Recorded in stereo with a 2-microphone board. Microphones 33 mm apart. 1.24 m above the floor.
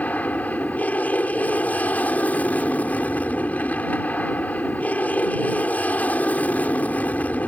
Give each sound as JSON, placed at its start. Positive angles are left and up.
{"t": 0.0, "sound": "an aircraft", "side_deg": 55}